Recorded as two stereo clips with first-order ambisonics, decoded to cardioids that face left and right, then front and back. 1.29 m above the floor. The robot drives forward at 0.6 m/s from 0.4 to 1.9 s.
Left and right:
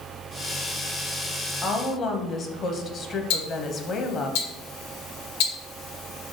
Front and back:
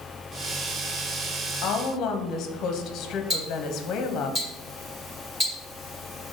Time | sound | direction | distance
1.6 | a woman speaking | 25° left | 0.6 m
3.3 | ticking | 105° left | 1.2 m